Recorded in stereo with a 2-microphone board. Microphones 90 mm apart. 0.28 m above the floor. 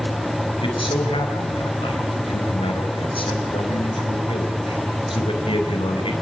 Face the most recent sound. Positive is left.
turn(degrees=75)  # may be behind; listen again after turning